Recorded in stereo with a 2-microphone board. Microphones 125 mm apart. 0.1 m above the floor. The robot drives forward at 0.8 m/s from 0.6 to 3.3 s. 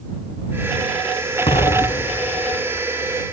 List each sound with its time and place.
1.5 s an explosion: 50° left (ahead or behind), 0.8 m; by 2.9 s 45° left (ahead or behind), 0.9 m